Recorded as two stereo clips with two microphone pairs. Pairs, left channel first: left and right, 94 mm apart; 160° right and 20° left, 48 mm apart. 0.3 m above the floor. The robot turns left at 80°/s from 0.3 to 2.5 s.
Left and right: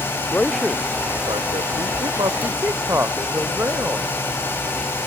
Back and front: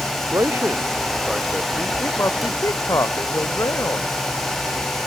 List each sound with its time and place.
0.3 s a man speaking: 20° left; by 4.1 s 155° right